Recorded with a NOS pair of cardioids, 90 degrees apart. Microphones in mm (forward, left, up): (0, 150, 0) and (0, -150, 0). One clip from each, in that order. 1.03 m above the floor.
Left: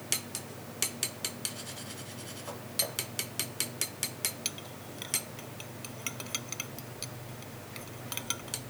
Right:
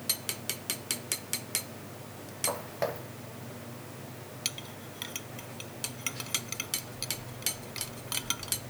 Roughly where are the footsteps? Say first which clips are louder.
Right 3 dB; ahead right.